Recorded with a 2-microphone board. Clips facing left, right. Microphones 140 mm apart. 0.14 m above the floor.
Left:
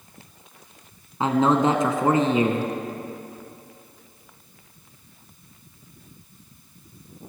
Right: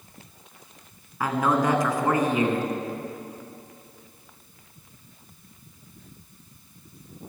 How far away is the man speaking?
About 1.5 m.